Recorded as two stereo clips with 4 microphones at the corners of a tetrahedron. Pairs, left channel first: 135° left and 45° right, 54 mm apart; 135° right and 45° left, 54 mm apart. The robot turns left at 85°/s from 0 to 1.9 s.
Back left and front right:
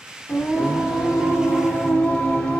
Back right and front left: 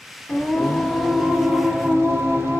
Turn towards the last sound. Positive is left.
turn(degrees=60)